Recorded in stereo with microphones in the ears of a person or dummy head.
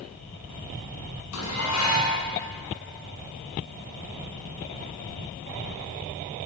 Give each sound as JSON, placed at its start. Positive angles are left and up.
{"t": 1.3, "sound": "dishes clattering", "side_deg": 85, "distance_m": 8.0}